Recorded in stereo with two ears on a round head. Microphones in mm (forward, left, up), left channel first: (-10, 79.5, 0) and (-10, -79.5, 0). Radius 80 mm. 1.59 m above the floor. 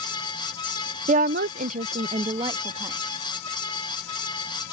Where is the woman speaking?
35° right (ahead or behind); by 3.0 s 20° right (ahead or behind).